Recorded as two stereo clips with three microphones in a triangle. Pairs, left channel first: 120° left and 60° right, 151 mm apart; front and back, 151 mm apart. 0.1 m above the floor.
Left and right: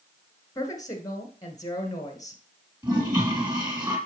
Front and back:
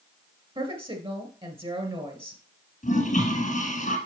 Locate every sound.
0.6 s a woman speaking: 170° left, 1.7 m
2.8 s a toilet flushing: 5° right, 3 m